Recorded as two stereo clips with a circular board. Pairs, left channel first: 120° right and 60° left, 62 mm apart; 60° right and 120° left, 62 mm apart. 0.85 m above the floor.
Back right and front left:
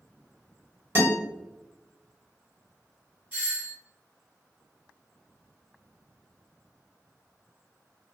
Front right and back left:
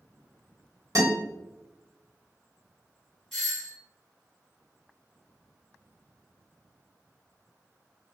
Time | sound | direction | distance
0.9 | a guitar | 105° left | 1.3 m
3.3 | a doorbell | 25° left | 1.8 m